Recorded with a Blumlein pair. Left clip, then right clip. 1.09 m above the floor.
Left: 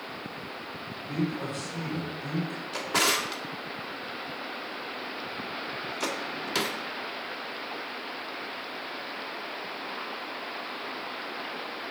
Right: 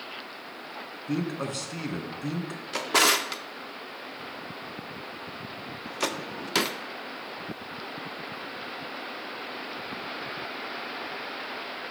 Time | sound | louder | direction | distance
1.1 | a man speaking | right 1 dB | 65° right | 2 m
2.7 | a drawer | right 3 dB | 15° right | 0.7 m